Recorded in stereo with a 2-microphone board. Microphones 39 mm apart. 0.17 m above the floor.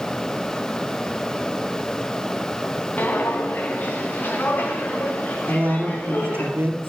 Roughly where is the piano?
I don't hear a piano.